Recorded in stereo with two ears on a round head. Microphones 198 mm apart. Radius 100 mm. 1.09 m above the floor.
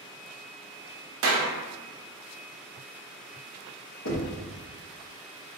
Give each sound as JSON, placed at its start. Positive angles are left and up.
{"t": 1.2, "sound": "a clap", "side_deg": -65, "distance_m": 1.0}
{"t": 4.0, "sound": "knocking", "side_deg": 80, "distance_m": 1.1}